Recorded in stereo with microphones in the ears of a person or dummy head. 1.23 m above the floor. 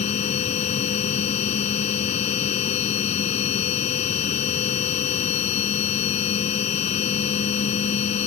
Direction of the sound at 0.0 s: 45° left (ahead or behind).